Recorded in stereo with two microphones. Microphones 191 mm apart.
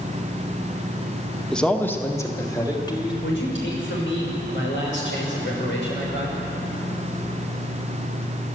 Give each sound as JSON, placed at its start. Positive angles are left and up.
{"t": 1.5, "sound": "a man speaking", "side_deg": 5, "distance_m": 1.5}
{"t": 3.2, "sound": "a man speaking", "side_deg": 85, "distance_m": 6.0}